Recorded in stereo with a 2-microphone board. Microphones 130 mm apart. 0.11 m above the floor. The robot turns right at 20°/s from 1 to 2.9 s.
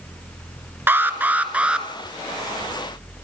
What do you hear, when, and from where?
0.9 s an alarm: 15° right (ahead or behind), 1.4 m; by 1.9 s 5° right (ahead or behind), 1.4 m